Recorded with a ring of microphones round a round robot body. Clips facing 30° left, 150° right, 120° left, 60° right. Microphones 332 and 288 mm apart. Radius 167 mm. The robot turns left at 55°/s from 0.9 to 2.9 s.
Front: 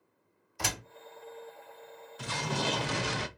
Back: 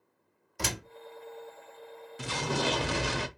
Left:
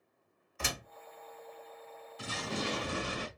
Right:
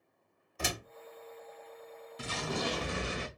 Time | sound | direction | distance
0.6 | a door slam | 115° right | 2 m
2.2 | an explosion | 90° right | 0.8 m